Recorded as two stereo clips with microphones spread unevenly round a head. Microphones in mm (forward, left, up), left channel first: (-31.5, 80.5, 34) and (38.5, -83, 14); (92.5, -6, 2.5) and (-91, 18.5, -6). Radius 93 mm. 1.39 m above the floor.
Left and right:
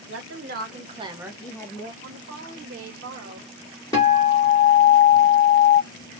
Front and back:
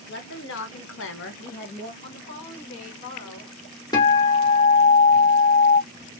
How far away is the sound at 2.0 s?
About 1.1 m.